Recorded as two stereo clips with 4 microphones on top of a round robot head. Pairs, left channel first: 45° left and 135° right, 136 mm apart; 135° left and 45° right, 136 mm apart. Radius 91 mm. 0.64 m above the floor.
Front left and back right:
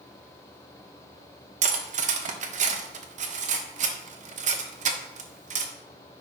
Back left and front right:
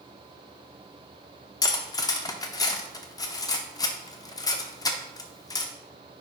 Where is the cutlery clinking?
165° right, 0.8 m.